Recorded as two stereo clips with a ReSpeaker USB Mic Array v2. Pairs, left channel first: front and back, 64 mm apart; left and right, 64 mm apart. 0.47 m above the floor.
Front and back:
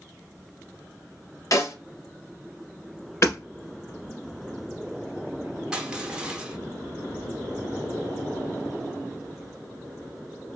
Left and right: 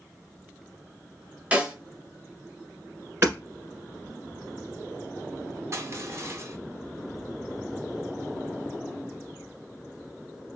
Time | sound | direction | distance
1.5 | a snare drum | 20° right | 0.8 m
3.2 | hammering | 40° right | 1.4 m
5.7 | crushing | 105° right | 0.7 m